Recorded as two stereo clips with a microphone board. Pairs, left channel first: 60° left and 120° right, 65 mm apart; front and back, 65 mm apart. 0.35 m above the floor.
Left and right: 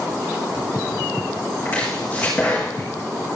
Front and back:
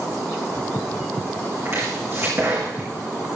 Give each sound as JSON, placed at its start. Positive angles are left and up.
{"t": 1.6, "sound": "chopping", "azimuth_deg": 130, "distance_m": 5.0}